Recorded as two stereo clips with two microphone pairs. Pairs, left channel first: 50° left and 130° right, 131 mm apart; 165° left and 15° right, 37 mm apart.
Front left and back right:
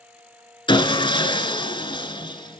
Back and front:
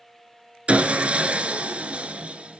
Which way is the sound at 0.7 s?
20° left.